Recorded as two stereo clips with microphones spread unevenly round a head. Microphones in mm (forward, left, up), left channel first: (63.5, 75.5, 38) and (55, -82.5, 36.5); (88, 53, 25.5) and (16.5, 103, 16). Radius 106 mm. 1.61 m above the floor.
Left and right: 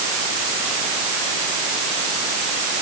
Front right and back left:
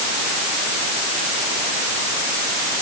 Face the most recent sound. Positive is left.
No sound to turn to.